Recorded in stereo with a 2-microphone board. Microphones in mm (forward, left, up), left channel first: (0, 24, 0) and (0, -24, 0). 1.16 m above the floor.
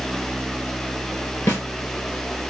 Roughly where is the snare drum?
Left.